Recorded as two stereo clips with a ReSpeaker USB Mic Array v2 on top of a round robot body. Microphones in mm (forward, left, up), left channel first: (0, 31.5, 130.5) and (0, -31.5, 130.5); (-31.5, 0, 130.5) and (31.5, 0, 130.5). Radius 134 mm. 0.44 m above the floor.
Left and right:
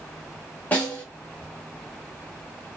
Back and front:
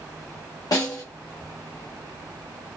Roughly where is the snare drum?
Behind left.